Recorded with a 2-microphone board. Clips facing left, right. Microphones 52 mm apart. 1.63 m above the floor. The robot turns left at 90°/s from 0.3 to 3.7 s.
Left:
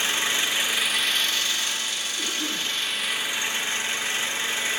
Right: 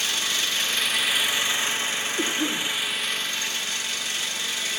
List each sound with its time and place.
0.0 s an engine running: 25° left (ahead or behind), 0.9 m
2.2 s a cough: 130° right, 1.0 m; by 2.7 s straight behind, 1.0 m